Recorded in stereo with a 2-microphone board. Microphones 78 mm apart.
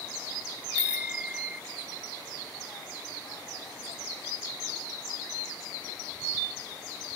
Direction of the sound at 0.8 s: 15° right (ahead or behind).